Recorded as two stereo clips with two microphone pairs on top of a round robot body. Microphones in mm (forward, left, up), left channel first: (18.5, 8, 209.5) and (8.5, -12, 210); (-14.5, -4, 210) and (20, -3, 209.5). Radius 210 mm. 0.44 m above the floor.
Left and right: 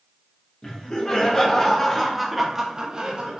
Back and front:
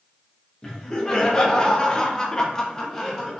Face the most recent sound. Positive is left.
turn(degrees=-100)